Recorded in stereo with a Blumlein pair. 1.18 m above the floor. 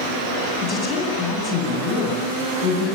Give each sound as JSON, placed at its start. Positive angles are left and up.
{"t": 0.6, "sound": "a woman speaking", "azimuth_deg": 25, "distance_m": 10.0}